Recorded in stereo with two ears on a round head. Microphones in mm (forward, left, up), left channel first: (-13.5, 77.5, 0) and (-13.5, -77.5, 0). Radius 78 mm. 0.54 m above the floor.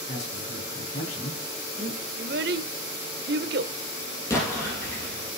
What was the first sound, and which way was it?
A man speaking, 40° left (ahead or behind).